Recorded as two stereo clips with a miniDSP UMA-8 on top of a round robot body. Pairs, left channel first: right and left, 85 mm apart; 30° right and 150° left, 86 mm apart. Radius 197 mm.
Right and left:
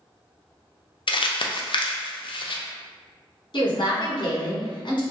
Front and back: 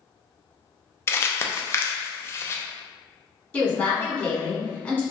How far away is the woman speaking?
About 1.5 m.